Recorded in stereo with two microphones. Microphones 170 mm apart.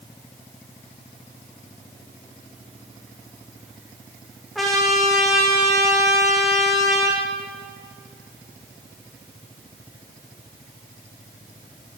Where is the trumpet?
Centre (ahead or behind), 5.5 m.